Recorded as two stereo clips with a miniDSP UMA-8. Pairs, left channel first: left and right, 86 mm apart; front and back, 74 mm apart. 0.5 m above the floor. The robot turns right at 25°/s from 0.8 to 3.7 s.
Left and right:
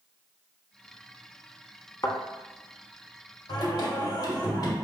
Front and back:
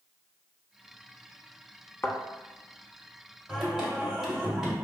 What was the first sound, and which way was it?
A thud, 50° left.